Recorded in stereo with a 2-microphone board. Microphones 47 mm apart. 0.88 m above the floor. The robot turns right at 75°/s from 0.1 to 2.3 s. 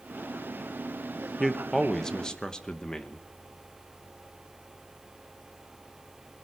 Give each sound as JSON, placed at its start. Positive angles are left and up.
{"t": 1.4, "sound": "a man speaking", "side_deg": 0, "distance_m": 0.9}